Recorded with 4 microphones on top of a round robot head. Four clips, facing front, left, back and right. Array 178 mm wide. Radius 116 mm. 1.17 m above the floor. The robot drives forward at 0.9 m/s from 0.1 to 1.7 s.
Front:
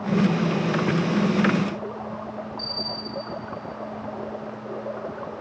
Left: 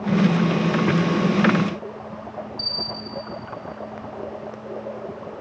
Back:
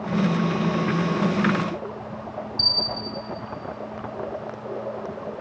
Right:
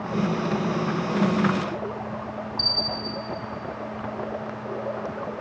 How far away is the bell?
About 4 m.